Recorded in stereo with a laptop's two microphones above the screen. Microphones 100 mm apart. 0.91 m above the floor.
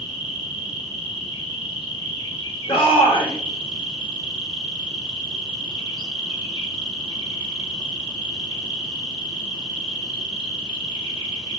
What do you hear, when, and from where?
0.0 s an insect: 55° left (ahead or behind), 2 m
2.7 s a shout: 60° left (ahead or behind), 1.4 m